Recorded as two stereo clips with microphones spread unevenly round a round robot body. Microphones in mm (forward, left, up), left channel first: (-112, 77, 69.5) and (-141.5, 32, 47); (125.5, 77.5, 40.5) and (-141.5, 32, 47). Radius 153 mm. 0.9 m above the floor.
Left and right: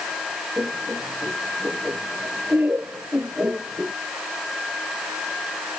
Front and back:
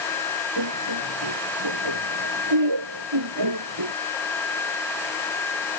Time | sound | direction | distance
0.6 | laughter | 170° right | ?